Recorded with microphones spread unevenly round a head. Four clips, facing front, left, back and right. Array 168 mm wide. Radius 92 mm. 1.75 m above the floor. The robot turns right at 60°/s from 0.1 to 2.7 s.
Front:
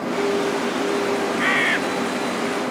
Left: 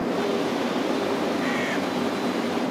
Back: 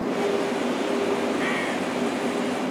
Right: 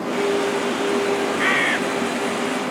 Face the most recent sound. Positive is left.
turn(degrees=30)